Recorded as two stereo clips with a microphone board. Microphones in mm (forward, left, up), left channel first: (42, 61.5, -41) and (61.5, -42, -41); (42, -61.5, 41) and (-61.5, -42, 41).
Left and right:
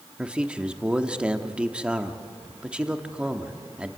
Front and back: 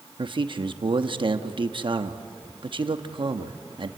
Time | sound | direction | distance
0.2 | a man speaking | 160° right | 1.0 m